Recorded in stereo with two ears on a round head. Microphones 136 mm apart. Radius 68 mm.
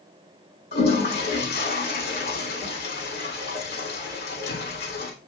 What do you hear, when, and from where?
0.7 s a toilet flushing: 70° left (ahead or behind), 2.5 m